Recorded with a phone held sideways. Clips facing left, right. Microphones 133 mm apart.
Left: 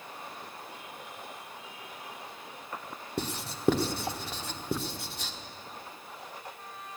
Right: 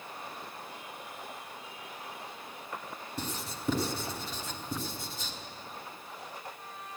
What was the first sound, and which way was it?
Writing, 65° left (ahead or behind).